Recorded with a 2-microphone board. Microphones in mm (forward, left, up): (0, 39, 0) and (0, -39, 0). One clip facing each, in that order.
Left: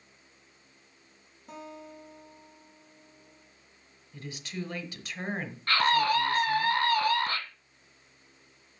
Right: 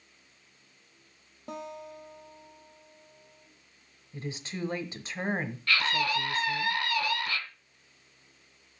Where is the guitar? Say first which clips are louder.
Right 4 dB; 65° right (ahead or behind), 2 m.